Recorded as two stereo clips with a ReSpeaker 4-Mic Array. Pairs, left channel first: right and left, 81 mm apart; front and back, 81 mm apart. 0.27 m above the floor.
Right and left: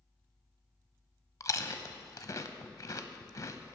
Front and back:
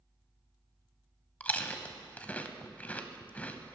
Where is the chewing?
65° right, 0.6 m.